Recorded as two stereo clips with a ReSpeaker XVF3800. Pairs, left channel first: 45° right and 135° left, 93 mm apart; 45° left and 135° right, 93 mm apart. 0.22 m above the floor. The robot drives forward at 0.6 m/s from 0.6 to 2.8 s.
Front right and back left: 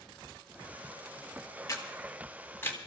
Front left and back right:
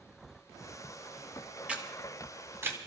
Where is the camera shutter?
65° right, 2 m; by 2.8 s 95° right, 2.0 m.